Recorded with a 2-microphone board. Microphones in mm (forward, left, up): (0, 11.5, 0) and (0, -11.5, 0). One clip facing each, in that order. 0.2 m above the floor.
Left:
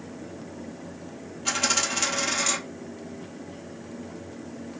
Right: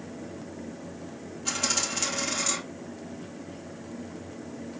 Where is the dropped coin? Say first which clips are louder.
Left 4 dB; 15° left (ahead or behind), 2.5 m.